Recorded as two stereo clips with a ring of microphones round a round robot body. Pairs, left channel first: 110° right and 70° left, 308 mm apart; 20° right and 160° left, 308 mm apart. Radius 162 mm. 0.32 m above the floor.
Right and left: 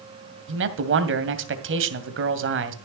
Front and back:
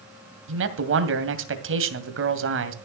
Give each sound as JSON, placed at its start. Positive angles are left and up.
{"t": 0.5, "sound": "a man speaking", "azimuth_deg": 115, "distance_m": 2.0}